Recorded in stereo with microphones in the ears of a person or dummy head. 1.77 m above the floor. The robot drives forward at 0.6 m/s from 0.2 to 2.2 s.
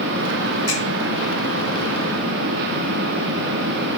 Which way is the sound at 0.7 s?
10° right (ahead or behind).